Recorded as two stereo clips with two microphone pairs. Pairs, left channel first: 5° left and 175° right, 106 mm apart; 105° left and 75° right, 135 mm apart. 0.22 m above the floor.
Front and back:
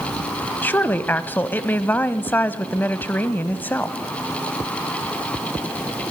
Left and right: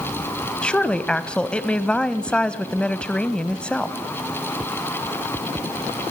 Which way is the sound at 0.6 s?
40° left.